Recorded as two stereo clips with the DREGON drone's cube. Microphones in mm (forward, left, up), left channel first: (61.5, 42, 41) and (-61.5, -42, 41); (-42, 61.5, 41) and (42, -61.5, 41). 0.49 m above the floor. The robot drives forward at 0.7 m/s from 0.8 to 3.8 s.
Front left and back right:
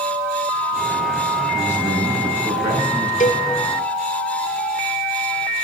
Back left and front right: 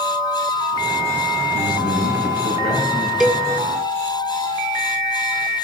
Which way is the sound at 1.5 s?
135° left.